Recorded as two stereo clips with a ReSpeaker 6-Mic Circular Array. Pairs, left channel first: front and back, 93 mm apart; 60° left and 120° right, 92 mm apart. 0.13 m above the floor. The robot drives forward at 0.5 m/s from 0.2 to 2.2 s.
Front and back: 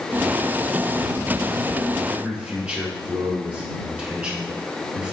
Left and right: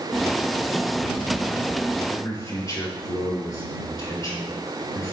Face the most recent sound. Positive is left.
turn(degrees=105)